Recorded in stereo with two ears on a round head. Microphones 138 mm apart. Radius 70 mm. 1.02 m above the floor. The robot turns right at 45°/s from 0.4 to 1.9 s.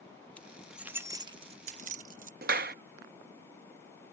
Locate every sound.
0.4 s keys jangling: 10° left (ahead or behind); by 2.3 s 60° right (ahead or behind)
2.4 s a clap: 60° right (ahead or behind)